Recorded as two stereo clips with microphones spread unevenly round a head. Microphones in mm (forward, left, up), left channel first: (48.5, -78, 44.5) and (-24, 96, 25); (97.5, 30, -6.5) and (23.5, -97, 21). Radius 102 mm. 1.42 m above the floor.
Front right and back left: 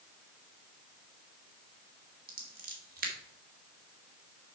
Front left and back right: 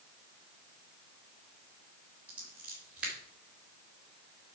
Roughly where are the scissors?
Behind.